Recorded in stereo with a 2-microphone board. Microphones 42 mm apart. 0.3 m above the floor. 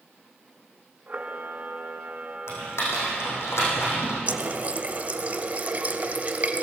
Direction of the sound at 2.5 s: 90° left.